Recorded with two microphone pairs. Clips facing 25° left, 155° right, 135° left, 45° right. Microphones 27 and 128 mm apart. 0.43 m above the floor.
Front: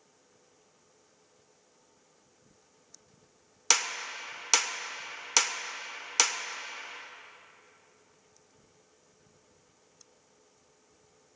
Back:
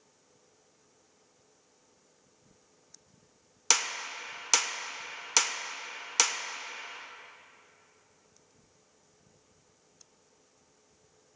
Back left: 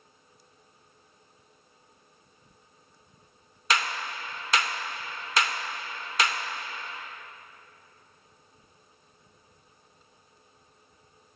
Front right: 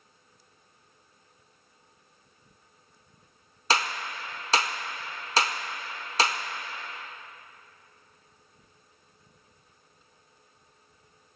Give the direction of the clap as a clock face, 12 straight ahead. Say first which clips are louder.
Front 1 dB, front right 1 dB; 2 o'clock.